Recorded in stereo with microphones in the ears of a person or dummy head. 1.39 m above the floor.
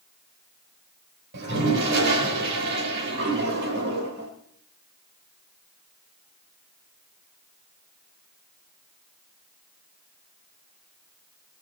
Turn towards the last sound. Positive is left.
turn(degrees=-60)  # may be behind; listen again after turning